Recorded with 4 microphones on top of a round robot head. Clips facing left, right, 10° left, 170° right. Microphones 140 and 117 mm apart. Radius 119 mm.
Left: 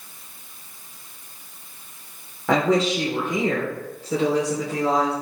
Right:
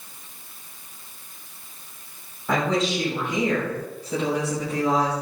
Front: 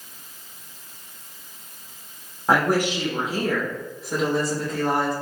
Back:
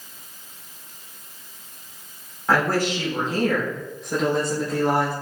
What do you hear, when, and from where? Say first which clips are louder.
2.5 s a woman speaking: left 4 dB, front 1 dB; 80° left, 3.5 m; by 5.1 s 110° left, 4 m